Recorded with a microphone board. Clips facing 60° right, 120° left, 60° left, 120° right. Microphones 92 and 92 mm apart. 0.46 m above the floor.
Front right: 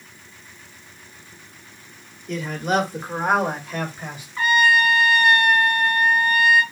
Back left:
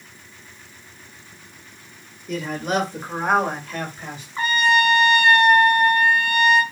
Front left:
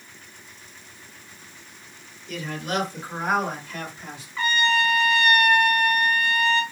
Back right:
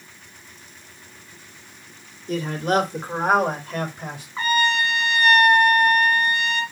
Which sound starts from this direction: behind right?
A man speaking, at 2.3 s.